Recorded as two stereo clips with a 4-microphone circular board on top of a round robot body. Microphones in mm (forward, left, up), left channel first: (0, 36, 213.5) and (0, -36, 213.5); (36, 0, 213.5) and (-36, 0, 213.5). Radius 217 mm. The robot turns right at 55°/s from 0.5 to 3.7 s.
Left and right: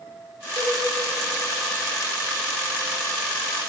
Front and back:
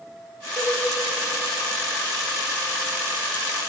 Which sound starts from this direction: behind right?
A cowbell, at 0.6 s.